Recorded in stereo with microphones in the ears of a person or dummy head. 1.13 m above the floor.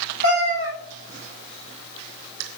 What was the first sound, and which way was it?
A cat meowing, 60° right (ahead or behind).